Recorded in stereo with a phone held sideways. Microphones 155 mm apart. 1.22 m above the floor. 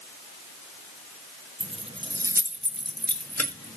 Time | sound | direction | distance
1.6 | keys jangling | 45° right (ahead or behind) | 0.9 m